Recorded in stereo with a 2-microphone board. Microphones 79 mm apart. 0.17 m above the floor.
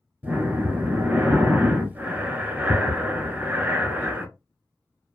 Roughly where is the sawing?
No sawing in this recording.